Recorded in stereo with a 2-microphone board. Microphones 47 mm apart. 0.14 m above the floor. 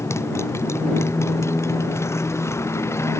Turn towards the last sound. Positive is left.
turn(degrees=80)